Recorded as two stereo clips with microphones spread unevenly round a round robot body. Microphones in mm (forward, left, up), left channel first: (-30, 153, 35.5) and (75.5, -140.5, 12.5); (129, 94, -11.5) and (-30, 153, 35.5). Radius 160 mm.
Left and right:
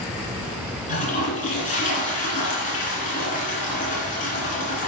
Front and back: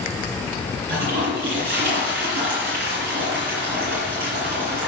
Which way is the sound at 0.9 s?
175° left.